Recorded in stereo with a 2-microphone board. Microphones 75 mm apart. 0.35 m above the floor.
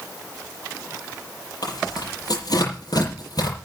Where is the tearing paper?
60° left (ahead or behind), 7.5 m.